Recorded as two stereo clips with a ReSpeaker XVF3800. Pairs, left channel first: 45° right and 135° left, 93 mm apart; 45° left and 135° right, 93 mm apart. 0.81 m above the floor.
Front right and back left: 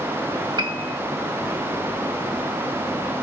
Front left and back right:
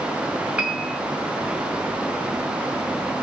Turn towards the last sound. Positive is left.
turn(degrees=150)